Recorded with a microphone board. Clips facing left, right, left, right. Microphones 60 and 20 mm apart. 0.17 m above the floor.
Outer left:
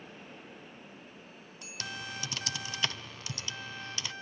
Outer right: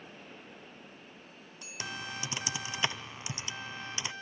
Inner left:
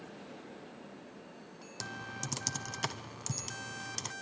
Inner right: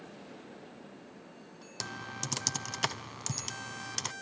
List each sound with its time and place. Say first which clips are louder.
1.8 s typing on a keyboard: outer right 1 dB, inner right 2 dB; 20° right (ahead or behind), 0.7 m